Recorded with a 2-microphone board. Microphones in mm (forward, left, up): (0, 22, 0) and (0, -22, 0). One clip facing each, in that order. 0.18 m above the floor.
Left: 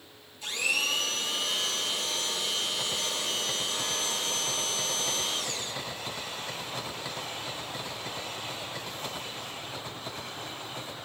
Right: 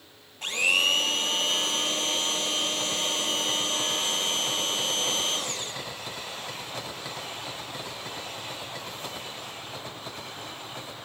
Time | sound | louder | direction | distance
0.4 | a blender | right 5 dB | 55° right (ahead or behind) | 2.5 m